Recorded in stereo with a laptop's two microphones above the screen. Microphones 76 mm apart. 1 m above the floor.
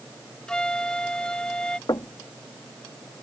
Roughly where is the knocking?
Left.